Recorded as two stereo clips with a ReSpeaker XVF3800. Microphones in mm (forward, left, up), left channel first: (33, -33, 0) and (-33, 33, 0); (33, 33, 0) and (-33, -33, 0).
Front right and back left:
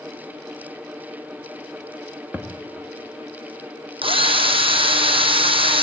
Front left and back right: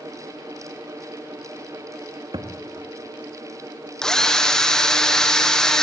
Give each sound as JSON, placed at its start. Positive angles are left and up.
{"t": 2.3, "sound": "a thud", "azimuth_deg": -150, "distance_m": 2.5}
{"t": 4.0, "sound": "a drill", "azimuth_deg": 125, "distance_m": 2.0}